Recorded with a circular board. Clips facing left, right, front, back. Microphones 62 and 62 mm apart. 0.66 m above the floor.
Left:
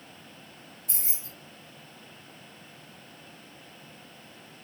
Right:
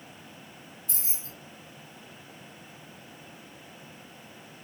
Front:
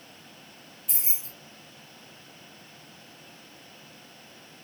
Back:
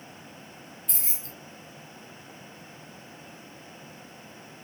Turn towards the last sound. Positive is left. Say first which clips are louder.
# left 1 dB, even
turn(degrees=85)